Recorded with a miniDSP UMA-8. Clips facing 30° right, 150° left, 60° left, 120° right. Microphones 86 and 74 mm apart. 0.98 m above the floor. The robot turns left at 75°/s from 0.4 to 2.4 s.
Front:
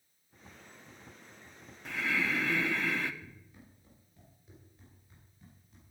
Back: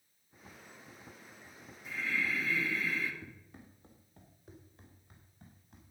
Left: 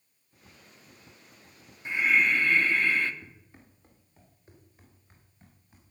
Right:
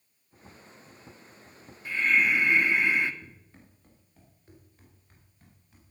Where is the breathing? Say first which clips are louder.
Front 3 dB, even; 5° right, 1.1 m; by 3.1 s 45° right, 1.1 m.